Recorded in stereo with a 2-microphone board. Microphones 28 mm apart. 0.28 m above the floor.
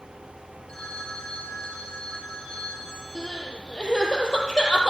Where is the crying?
25° left (ahead or behind), 6 m.